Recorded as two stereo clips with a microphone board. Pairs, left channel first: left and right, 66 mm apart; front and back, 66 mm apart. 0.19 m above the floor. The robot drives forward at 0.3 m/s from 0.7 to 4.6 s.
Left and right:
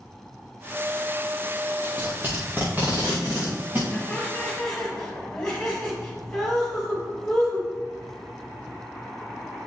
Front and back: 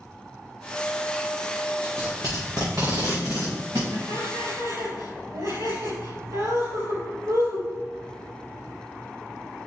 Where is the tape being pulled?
150° right, 3.5 m; by 3.8 s 155° right, 4 m.